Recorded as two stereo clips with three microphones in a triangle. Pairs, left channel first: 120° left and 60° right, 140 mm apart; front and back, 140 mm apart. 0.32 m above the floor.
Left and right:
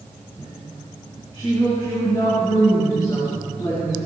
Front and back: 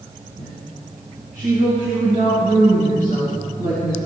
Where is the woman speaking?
Straight behind, 4 m.